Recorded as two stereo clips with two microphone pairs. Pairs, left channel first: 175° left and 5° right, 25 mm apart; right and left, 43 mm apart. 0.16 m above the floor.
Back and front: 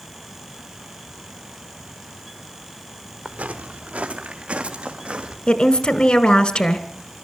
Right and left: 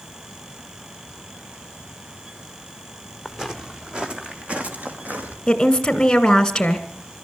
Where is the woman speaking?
160° right, 1.7 m.